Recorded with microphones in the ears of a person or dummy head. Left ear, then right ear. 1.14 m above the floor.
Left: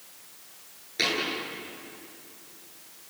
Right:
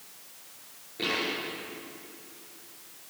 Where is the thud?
75° left (ahead or behind), 9.5 m.